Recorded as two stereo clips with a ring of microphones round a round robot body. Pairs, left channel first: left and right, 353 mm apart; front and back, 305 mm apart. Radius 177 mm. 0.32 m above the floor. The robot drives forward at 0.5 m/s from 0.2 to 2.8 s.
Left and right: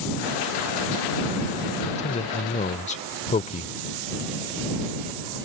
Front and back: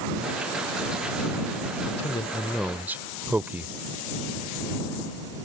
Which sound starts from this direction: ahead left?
A man speaking, at 1.9 s.